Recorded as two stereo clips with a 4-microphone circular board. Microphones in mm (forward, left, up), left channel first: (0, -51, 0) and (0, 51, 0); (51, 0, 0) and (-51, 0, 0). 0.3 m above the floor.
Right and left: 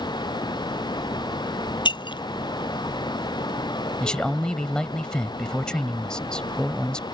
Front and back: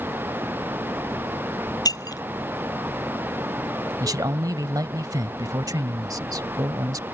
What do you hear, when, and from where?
1.9 s breaking glass: 50° right
4.0 s a man speaking: 165° right